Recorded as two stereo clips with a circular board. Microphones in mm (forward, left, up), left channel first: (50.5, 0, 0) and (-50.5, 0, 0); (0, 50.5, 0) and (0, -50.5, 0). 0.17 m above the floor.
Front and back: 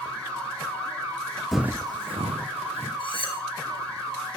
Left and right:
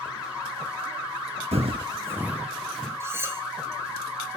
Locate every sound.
1.5 s footsteps: 90° right, 0.6 m; by 2.9 s 175° left, 1.6 m
3.0 s cutlery clinking: 25° right, 1.5 m